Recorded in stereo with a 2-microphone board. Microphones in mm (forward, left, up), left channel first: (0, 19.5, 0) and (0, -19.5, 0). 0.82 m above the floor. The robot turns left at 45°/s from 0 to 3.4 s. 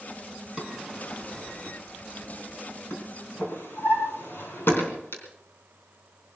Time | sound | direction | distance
0.6 | a drawer | 20° right (ahead or behind) | 3.5 m